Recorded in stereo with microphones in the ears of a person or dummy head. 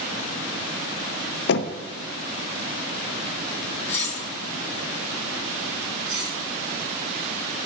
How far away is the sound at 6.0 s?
About 3 m.